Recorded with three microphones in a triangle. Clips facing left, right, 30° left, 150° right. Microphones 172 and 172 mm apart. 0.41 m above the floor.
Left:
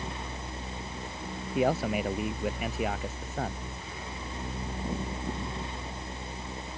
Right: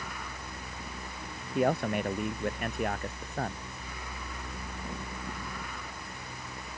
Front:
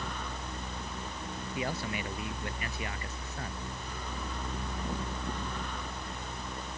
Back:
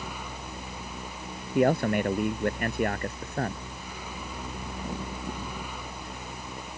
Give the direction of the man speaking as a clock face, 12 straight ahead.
6 o'clock.